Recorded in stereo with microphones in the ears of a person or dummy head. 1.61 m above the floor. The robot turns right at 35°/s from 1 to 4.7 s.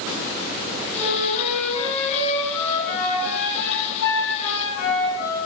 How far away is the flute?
About 9.5 m.